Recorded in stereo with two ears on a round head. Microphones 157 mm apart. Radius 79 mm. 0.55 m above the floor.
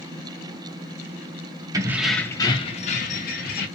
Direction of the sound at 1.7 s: 20° right (ahead or behind).